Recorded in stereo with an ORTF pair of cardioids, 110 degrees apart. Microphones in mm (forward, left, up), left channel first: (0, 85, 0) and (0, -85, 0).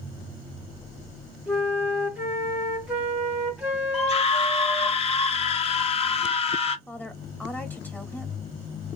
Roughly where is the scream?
Ahead left.